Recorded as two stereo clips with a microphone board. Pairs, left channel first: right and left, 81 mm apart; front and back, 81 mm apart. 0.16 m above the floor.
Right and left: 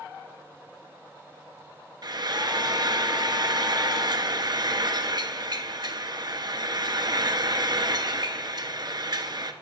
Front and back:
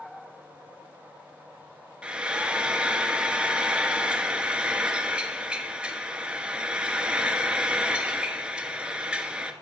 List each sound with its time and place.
2.0 s frying: 105° left, 0.7 m